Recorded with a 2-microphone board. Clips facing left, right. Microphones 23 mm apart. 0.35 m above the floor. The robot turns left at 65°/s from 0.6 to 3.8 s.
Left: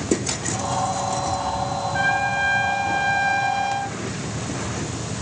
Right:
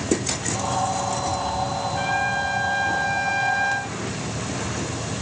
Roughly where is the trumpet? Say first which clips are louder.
Left 3 dB; left.